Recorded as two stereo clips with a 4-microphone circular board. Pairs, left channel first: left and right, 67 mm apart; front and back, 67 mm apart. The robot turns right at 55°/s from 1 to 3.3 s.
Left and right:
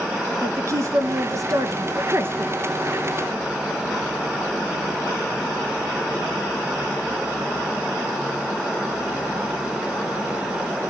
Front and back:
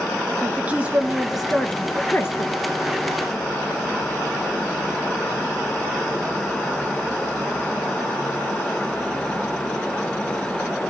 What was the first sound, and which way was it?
A woman speaking, 115° right.